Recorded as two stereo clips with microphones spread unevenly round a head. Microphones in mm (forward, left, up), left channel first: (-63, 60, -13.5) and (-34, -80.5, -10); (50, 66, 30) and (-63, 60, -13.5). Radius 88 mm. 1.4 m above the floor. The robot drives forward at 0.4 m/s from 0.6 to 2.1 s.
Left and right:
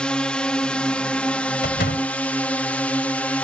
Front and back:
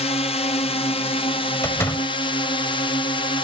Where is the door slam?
65° left.